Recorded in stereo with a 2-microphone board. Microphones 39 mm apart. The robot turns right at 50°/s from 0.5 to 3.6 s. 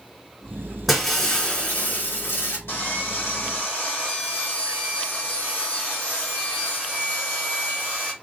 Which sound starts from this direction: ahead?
Breaking glass, at 0.9 s.